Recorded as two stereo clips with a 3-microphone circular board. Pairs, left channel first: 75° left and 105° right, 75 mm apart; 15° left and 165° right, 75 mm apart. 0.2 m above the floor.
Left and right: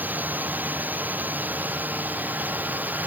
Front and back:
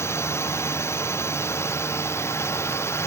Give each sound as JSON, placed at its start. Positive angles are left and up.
{"t": 0.0, "sound": "a drone", "azimuth_deg": -35}